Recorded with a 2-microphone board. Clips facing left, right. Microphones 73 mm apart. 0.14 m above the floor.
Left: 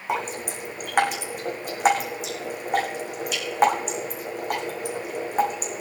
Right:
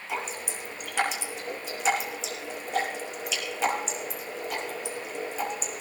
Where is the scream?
No scream in this recording.